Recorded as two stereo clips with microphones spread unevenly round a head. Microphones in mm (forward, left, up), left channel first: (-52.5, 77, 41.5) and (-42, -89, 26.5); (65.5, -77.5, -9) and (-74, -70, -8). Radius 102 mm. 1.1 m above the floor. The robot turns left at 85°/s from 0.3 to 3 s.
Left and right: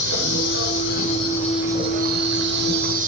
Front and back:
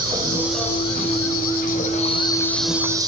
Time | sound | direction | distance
0.0 | an insect | 110° left | 3.5 m